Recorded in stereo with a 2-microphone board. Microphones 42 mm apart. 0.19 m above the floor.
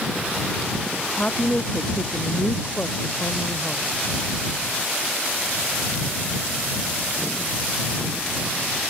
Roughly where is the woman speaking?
Left.